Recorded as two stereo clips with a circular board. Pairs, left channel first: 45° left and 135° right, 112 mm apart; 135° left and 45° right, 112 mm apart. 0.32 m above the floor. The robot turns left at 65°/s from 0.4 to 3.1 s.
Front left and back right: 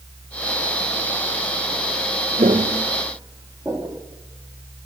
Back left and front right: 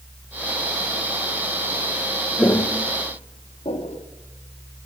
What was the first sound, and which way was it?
Footsteps, 145° right.